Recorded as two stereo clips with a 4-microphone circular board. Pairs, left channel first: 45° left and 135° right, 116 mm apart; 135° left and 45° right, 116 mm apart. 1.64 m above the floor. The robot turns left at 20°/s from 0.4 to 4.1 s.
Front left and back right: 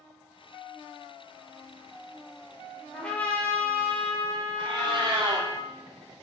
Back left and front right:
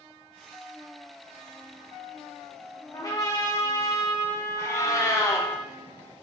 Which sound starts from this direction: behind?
A cat meowing, at 4.6 s.